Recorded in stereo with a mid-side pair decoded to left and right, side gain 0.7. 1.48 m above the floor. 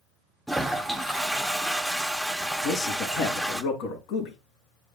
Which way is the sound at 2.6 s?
70° left.